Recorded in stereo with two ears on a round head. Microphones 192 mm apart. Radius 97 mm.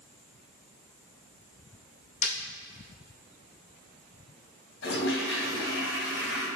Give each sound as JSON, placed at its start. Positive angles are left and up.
{"t": 2.2, "sound": "breaking glass", "side_deg": 30, "distance_m": 2.5}
{"t": 4.8, "sound": "a toilet flushing", "side_deg": 60, "distance_m": 2.5}